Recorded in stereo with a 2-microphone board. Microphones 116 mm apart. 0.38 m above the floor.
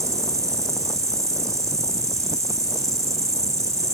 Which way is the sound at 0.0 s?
25° right (ahead or behind).